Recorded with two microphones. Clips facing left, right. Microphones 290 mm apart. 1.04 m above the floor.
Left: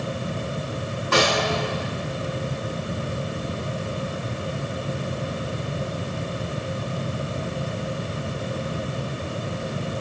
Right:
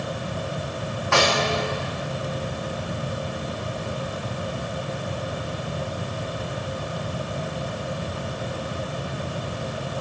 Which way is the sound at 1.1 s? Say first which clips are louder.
Left 1 dB; 45° left (ahead or behind).